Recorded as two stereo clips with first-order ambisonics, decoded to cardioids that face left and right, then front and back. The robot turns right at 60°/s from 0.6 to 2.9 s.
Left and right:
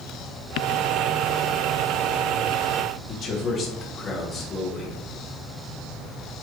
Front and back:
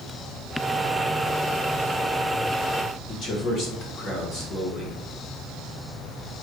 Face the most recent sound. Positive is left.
turn(degrees=45)